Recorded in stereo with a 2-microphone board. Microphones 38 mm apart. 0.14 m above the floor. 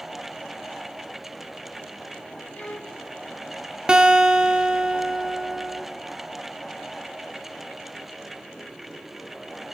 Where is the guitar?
25° right (ahead or behind), 1.3 m.